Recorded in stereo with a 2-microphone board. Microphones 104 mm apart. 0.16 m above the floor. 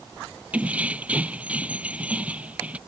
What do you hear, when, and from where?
0.5 s keys jangling: 15° right (ahead or behind)